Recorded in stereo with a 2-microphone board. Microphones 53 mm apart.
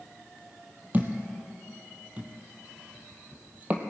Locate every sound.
0.9 s a thud: 30° right (ahead or behind), 1.2 m